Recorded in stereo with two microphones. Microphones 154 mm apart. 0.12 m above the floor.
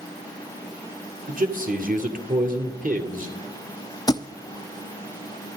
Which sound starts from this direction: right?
A man speaking, at 1.3 s.